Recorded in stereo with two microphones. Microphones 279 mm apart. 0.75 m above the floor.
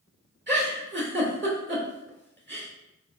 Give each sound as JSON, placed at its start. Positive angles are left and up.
{"t": 0.5, "sound": "a giggle", "side_deg": -35, "distance_m": 1.5}